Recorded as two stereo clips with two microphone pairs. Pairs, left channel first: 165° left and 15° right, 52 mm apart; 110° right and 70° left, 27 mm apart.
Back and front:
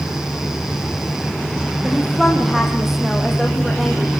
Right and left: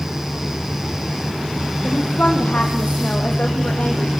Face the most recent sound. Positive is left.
turn(degrees=-105)